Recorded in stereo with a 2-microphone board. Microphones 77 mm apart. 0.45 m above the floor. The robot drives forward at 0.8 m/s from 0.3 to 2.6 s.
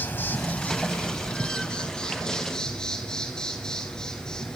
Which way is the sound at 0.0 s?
25° left (ahead or behind).